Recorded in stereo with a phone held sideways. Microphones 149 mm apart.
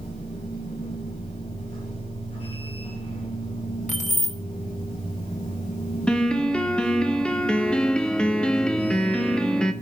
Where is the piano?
5° left (ahead or behind), 0.8 m.